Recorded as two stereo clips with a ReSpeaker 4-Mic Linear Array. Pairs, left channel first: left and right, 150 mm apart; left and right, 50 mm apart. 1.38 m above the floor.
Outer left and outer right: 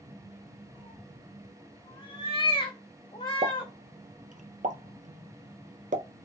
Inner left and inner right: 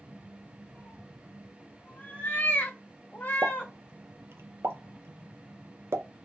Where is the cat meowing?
30° left (ahead or behind), 1.3 m.